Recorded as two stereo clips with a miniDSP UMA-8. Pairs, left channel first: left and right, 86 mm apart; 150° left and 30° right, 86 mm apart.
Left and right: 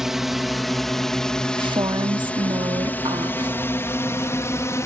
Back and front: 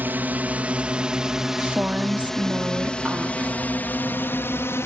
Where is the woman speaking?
100° right.